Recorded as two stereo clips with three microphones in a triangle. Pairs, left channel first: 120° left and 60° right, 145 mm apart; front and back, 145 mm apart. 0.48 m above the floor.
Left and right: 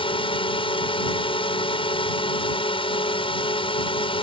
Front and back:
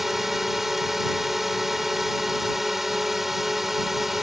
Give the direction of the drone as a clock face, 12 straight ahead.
9 o'clock.